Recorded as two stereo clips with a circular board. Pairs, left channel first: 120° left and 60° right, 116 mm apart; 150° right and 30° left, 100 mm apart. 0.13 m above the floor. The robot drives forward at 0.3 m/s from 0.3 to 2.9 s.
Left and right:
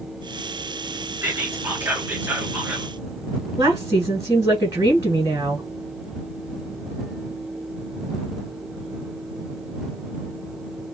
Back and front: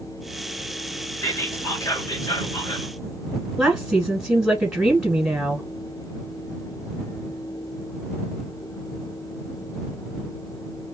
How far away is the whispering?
About 1.3 m.